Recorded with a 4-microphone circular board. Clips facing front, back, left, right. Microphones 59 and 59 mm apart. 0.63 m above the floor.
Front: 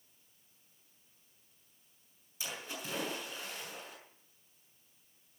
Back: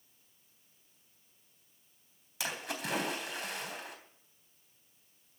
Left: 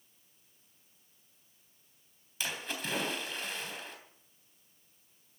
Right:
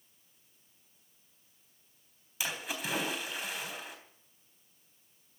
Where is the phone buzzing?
I don't hear a phone buzzing.